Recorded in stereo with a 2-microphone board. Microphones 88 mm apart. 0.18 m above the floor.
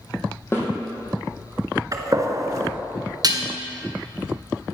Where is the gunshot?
40° right (ahead or behind), 1.3 m.